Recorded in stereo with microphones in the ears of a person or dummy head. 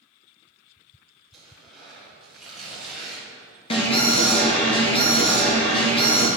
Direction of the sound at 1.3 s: 5° left (ahead or behind).